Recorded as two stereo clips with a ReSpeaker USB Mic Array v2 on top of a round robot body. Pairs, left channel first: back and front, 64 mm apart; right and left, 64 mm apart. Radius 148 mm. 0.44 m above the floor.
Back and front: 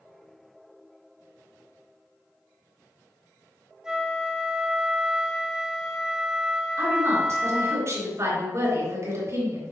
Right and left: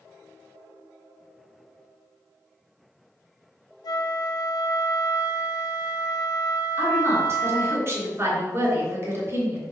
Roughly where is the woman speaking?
Ahead left.